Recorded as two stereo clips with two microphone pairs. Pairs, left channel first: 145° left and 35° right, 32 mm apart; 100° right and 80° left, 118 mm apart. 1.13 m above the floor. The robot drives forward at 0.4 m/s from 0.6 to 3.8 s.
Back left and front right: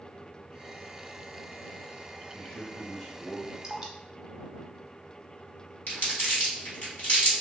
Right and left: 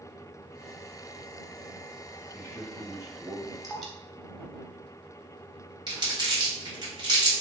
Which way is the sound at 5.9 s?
135° left.